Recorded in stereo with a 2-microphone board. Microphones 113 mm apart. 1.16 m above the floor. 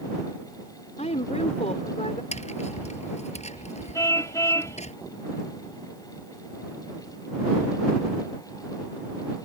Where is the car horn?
30° left (ahead or behind).